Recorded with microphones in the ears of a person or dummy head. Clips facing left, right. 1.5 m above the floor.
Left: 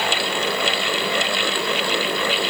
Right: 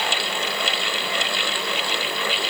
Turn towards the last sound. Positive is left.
No sound to turn to.